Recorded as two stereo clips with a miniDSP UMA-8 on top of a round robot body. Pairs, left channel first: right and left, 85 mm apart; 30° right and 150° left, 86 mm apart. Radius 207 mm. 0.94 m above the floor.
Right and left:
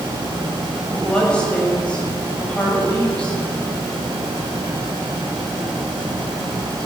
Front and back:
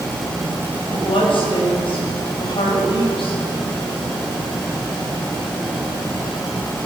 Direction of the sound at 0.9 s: 10° right.